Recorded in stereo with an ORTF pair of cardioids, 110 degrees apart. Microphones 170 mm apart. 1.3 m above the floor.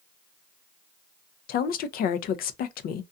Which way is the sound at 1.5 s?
60° left.